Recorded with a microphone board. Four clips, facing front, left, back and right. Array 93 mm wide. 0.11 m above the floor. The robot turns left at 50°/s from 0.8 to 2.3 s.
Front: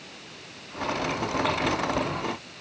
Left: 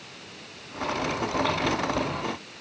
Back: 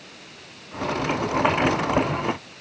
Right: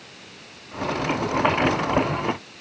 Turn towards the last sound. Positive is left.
No sound to turn to.